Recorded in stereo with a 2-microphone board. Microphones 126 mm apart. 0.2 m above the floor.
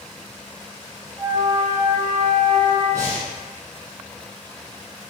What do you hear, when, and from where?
1.2 s a flute: 35° right (ahead or behind), 1.1 m
2.9 s breathing: 25° right (ahead or behind), 1.6 m